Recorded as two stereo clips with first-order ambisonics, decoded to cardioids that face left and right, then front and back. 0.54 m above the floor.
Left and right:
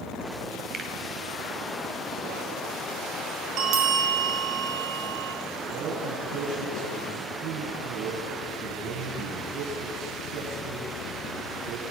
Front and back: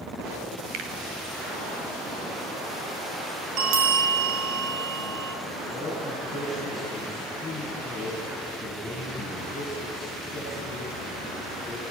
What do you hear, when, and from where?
0.7 s a finger snap: 155° right, 2.5 m
3.6 s a bell: 140° right, 2.5 m
5.7 s a man speaking: 90° right, 6.5 m